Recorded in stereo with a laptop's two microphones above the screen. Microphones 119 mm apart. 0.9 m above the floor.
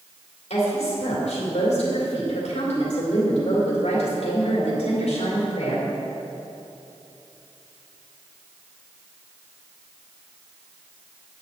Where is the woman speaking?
75° left (ahead or behind), 3.5 m.